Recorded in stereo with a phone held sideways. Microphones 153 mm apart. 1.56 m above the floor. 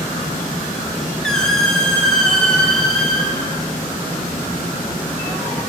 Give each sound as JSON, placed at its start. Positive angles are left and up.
{"t": 1.2, "sound": "a squeak", "side_deg": 5, "distance_m": 0.9}